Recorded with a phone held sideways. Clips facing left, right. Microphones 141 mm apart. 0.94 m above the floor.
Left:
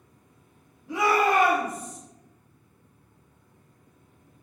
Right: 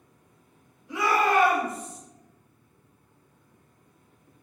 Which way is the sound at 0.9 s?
60° left (ahead or behind).